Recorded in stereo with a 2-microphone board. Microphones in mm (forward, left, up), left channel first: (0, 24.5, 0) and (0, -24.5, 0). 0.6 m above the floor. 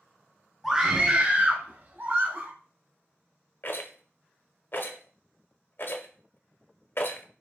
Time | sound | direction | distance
0.6 | a scream | centre (ahead or behind) | 0.6 m
3.6 | a rattle | 50° left (ahead or behind) | 0.5 m